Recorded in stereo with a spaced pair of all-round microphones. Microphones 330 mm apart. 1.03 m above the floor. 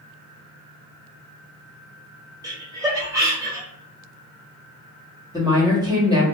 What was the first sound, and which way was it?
Laughter, 10° right (ahead or behind).